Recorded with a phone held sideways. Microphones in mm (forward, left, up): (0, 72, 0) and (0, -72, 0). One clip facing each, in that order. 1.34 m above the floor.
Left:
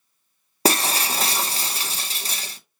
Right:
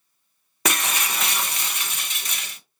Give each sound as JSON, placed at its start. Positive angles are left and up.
{"t": 0.7, "sound": "breaking glass", "side_deg": 35, "distance_m": 0.6}